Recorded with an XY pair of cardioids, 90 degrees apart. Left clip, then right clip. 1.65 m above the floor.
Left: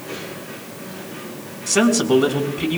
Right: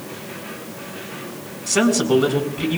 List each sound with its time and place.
1.7 s a man speaking: 10° left, 4 m